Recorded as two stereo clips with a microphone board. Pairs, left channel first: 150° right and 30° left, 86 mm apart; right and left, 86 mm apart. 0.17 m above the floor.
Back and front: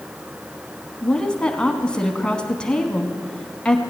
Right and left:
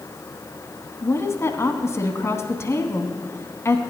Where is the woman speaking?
80° right, 1.1 m.